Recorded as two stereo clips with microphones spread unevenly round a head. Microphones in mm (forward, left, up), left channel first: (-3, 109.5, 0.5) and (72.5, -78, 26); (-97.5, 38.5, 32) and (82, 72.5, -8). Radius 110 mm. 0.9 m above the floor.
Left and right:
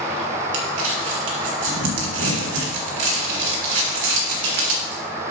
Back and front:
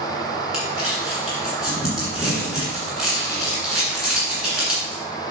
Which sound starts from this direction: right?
Crumpling, at 0.5 s.